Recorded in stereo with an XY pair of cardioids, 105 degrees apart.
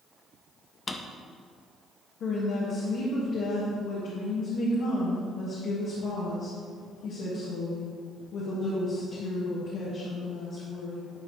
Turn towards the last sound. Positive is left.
turn(degrees=70)